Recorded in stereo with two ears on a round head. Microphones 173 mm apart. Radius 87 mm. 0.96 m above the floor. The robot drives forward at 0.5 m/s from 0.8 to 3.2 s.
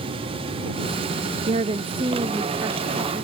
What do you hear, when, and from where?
1.5 s a woman speaking: 35° right (ahead or behind), 0.5 m; by 3.2 s 15° right (ahead or behind), 1.3 m